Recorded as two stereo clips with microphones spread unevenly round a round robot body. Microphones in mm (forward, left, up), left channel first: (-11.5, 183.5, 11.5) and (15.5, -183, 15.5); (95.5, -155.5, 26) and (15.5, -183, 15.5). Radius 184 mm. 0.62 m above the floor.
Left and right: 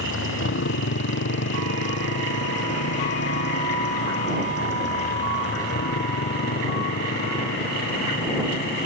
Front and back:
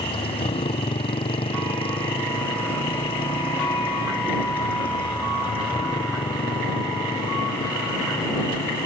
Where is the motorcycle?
35° left; by 8.9 s 30° left.